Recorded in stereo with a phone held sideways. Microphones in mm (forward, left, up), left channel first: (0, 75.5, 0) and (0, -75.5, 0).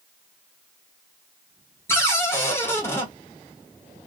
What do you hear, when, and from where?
1.9 s a cupboard door: 15° left (ahead or behind), 0.9 m